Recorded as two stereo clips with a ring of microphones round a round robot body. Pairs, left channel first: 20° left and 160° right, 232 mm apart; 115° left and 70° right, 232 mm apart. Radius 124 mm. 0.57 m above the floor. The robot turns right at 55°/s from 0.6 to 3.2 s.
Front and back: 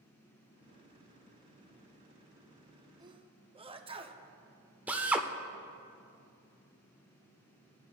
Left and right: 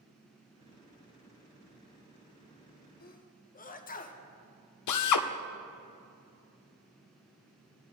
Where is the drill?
120° left, 0.6 m.